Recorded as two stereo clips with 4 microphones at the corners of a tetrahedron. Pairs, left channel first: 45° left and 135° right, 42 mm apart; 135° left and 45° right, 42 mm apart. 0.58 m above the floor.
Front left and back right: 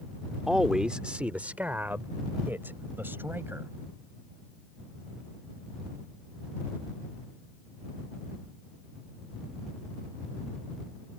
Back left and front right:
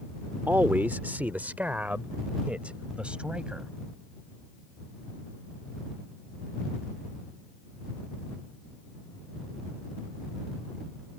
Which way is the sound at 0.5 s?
55° right.